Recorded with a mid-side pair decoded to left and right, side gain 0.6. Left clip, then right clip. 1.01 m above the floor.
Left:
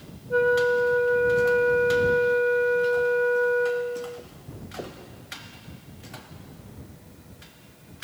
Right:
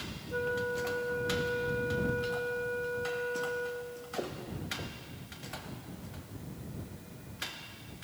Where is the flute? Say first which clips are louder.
Left 13 dB; 55° left.